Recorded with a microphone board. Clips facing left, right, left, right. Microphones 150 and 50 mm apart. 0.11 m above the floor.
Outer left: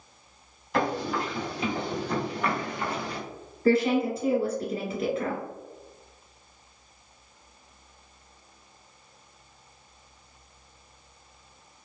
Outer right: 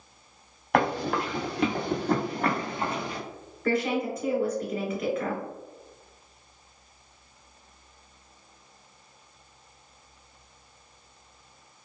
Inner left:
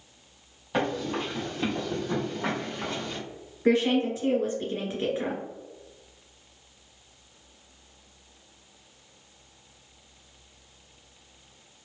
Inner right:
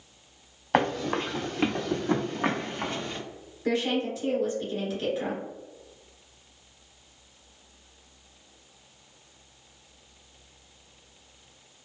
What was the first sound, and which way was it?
Running footsteps, 80° right.